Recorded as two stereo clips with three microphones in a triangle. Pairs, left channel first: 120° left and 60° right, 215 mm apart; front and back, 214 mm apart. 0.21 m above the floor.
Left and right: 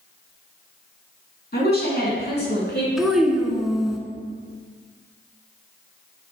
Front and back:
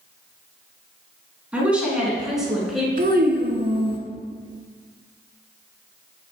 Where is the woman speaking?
100° left, 2.5 m; by 2.9 s 90° left, 3 m.